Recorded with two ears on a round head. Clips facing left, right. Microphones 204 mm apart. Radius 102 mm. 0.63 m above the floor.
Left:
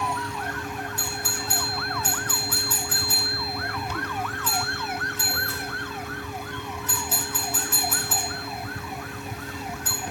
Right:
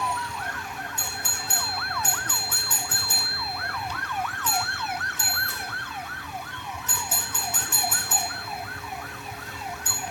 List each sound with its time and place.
1.0 s a doorbell: 20° right (ahead or behind), 3.5 m